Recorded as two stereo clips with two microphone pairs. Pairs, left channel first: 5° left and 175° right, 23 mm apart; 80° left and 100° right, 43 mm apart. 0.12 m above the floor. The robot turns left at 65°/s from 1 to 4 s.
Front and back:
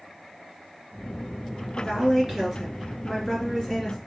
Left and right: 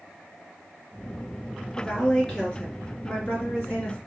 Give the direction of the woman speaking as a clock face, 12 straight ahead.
6 o'clock.